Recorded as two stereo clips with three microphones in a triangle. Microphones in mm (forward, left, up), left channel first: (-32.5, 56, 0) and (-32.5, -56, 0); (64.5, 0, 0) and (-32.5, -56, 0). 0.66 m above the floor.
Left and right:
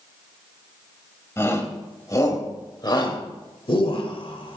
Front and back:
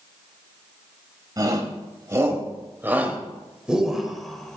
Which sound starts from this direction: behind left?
A shout, at 1.4 s.